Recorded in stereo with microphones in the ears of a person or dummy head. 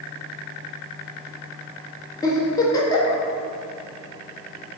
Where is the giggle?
20° left (ahead or behind), 1.3 m.